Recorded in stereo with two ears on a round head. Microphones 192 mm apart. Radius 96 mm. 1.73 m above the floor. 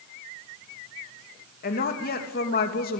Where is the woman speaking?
45° left (ahead or behind), 3 m.